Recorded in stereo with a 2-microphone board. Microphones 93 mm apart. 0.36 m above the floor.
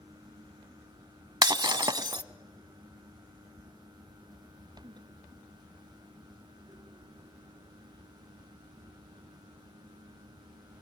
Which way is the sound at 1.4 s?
50° right (ahead or behind).